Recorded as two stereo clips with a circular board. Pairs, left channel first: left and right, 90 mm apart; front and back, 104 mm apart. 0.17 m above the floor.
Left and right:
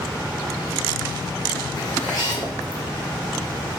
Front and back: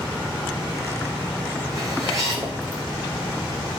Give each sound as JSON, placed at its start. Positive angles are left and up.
{"t": 1.8, "sound": "a zipper", "azimuth_deg": 125, "distance_m": 3.5}